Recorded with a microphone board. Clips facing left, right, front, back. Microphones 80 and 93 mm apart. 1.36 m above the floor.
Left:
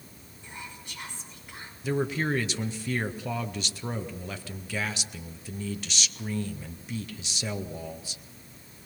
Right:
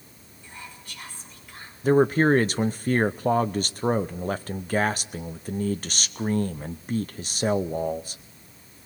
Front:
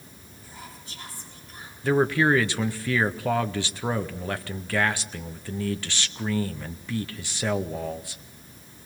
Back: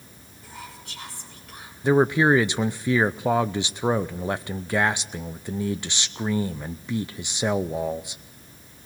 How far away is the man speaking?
About 0.6 m.